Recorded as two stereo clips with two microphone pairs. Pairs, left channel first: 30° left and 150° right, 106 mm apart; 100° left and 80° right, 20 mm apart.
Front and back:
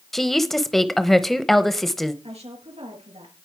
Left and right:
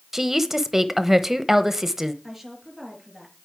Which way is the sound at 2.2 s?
160° right.